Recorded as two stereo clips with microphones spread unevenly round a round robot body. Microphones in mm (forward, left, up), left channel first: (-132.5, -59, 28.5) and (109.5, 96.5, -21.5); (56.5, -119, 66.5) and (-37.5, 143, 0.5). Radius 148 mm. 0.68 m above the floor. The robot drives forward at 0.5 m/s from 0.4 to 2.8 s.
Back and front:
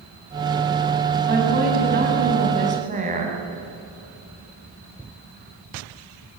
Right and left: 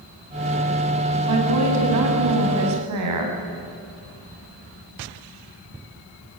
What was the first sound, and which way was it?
A woman speaking, 90° left.